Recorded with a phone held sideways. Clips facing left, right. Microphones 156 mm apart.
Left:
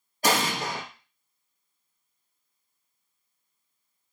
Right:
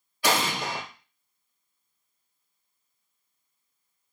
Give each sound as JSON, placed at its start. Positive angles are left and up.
{"t": 0.2, "sound": "an explosion", "side_deg": 45, "distance_m": 0.7}